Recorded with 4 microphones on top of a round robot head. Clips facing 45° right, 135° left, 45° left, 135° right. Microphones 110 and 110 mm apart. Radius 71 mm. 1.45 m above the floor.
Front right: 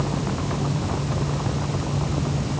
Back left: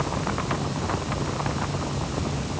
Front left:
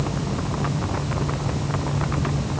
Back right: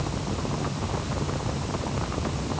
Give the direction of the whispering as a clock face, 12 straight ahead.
No whispering in this recording.